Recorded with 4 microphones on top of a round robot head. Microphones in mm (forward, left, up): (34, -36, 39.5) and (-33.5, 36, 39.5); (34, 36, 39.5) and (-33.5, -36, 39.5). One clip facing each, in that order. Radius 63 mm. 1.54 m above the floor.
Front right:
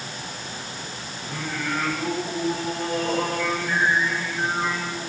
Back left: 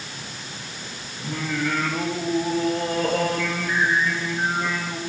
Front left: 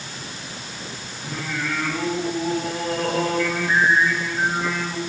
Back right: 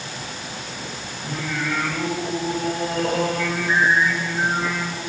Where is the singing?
135° left, 7 m.